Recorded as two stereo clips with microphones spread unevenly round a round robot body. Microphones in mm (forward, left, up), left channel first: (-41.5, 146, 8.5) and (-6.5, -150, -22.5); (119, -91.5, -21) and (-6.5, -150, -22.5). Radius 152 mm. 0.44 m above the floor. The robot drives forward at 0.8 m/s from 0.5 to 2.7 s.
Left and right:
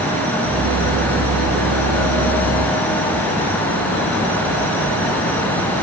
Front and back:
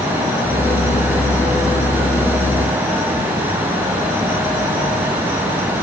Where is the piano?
No piano in this recording.